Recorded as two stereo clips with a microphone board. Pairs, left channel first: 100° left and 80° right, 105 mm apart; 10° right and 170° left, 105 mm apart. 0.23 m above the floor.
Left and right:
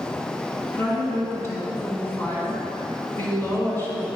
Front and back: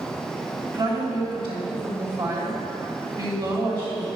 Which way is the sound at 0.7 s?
155° left.